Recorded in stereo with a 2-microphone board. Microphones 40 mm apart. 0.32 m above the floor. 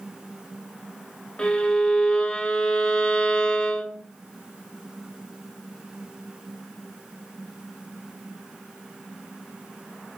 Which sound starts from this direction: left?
A violin, at 1.4 s.